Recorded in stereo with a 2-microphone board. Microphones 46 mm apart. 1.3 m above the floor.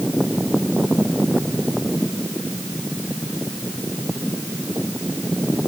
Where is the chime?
No chime in this recording.